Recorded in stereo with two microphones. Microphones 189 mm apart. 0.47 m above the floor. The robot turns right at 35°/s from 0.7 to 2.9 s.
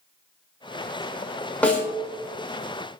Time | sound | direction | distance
1.6 | a snare drum | 5° left (ahead or behind) | 0.7 m